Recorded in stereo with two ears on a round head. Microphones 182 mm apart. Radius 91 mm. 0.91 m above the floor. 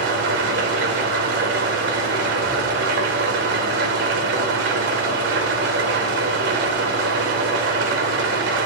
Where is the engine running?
65° right (ahead or behind), 3 m.